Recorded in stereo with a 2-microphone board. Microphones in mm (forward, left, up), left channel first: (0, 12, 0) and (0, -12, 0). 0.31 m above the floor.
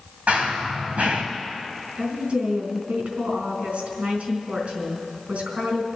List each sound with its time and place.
0.3 s running footsteps: 85° right, 3.5 m
2.0 s a woman speaking: 70° right (ahead or behind), 3.5 m